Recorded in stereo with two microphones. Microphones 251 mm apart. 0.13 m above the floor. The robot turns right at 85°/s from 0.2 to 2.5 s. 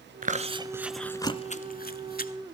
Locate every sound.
0.2 s chewing: 35° right (ahead or behind), 0.8 m; by 2.3 s 35° left (ahead or behind), 0.8 m